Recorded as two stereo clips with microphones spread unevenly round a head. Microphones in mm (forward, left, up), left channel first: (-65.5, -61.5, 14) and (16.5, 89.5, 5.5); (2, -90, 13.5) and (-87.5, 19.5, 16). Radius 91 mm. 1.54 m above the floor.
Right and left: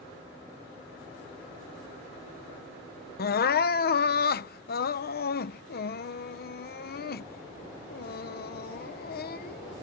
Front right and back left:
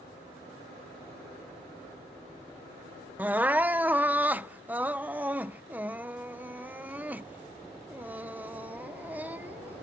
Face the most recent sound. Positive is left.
turn(degrees=-150)